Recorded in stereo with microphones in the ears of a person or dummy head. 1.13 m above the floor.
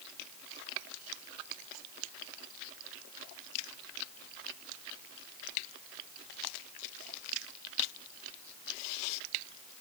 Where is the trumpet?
No trumpet in this recording.